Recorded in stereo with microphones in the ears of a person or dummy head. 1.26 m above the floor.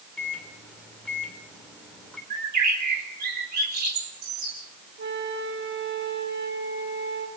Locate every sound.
0.2 s a microwave: 5° left (ahead or behind), 3 m
2.3 s a bird: 55° right (ahead or behind), 4 m
5.0 s a flute: 60° right (ahead or behind), 3 m